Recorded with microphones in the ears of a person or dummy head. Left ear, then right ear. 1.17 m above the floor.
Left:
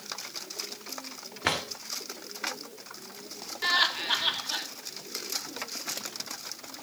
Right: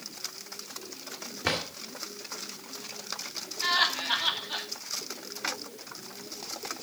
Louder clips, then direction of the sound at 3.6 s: Left 1 dB; 5° left (ahead or behind).